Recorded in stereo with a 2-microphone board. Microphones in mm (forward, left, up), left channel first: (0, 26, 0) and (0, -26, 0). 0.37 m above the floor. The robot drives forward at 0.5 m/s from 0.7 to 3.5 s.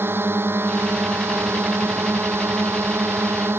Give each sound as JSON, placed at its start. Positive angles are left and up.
{"t": 0.0, "sound": "a drone", "side_deg": -45}